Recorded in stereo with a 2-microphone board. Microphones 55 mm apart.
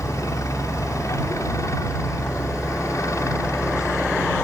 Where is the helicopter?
70° left (ahead or behind).